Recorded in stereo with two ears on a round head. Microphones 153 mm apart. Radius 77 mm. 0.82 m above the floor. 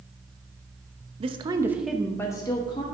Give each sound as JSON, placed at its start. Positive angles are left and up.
{"t": 1.2, "sound": "a woman speaking", "side_deg": -35, "distance_m": 0.7}